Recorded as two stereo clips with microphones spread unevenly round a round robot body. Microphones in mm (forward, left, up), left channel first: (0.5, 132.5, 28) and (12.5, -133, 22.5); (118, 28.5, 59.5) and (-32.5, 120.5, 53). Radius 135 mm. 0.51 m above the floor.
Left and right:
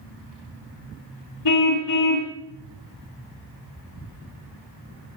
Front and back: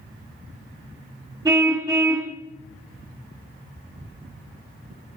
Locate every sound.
1.4 s a car horn: 75° left, 2.5 m